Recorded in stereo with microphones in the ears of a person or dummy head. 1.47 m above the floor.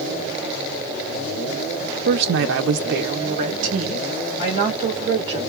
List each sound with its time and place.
2.0 s a woman speaking: 55° right (ahead or behind), 0.5 m; by 5.4 s 25° right (ahead or behind), 2 m